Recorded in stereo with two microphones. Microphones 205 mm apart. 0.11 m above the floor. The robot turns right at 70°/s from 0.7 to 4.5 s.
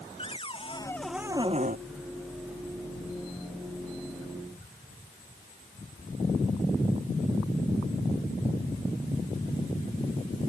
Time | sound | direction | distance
0.2 | a cupboard door | 155° left | ?